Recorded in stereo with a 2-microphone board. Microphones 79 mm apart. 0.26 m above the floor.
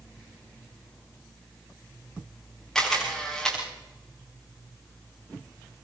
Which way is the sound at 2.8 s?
5° left (ahead or behind).